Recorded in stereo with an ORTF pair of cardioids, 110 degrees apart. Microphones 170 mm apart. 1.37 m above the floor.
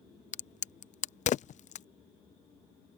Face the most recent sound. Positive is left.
turn(degrees=45)